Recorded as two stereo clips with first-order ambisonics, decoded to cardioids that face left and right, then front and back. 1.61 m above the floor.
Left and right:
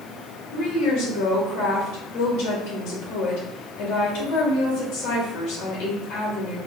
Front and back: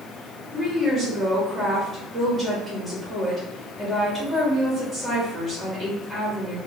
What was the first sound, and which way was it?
A woman speaking, 100° left.